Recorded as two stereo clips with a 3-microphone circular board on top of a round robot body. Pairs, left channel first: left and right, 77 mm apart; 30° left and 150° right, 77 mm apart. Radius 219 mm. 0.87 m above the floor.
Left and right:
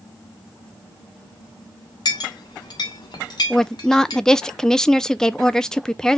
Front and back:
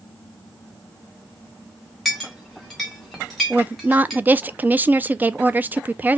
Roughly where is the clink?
Behind left.